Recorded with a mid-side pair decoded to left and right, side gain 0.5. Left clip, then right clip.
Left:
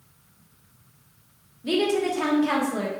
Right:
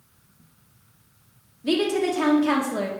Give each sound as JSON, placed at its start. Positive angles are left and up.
{"t": 1.6, "sound": "a woman speaking", "azimuth_deg": -20, "distance_m": 1.0}